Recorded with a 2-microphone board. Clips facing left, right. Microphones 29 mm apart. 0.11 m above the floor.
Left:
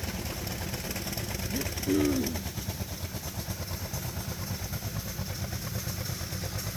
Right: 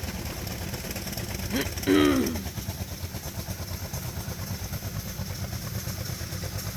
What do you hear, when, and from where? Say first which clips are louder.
1.5 s throat clearing: right 6 dB; 65° right (ahead or behind)